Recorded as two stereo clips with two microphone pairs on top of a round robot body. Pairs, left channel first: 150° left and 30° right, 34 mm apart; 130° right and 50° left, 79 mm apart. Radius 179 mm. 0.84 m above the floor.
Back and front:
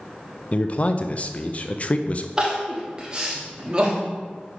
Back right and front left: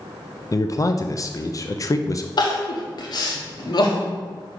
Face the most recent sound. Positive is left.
turn(degrees=-100)